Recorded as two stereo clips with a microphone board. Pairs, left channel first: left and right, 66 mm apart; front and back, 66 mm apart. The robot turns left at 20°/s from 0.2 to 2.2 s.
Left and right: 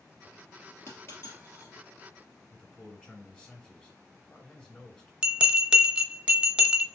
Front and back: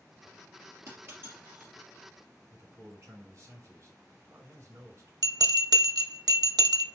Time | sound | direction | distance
0.9 | a dropped coin | 140° left | 2.5 m
2.5 | a man speaking | 155° left | 2 m
5.2 | a bell | 165° right | 0.5 m